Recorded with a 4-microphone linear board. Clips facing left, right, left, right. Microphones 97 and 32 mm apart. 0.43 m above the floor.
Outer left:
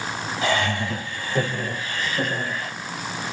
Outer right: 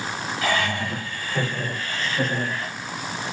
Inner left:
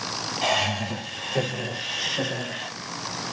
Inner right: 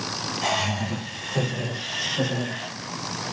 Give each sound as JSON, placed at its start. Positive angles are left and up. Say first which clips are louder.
{"t": 0.4, "sound": "laughter", "louder": "outer left 1 dB, inner left 2 dB", "side_deg": 25, "distance_m": 9.0}